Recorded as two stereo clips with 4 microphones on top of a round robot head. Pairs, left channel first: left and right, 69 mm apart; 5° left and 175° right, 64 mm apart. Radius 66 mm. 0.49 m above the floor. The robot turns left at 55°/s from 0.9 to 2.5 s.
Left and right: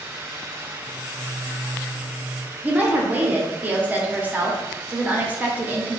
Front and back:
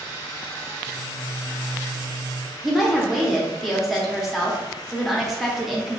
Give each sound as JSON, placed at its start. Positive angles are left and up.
{"t": 2.6, "sound": "a woman speaking", "azimuth_deg": -85, "distance_m": 0.9}